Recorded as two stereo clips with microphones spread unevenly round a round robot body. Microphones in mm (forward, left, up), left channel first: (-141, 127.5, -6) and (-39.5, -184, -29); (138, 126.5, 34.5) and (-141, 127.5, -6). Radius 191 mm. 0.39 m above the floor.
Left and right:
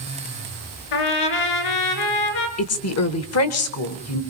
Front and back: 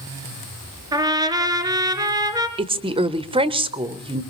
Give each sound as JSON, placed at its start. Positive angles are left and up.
{"t": 0.9, "sound": "a trumpet", "azimuth_deg": 100, "distance_m": 2.0}
{"t": 2.6, "sound": "a woman speaking", "azimuth_deg": 125, "distance_m": 1.1}